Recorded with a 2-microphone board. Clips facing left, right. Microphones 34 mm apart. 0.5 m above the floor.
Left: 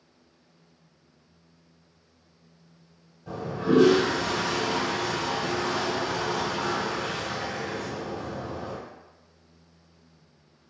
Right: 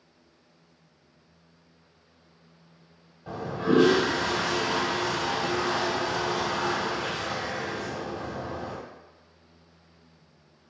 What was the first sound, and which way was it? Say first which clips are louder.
A toilet flushing: even; 40° right (ahead or behind).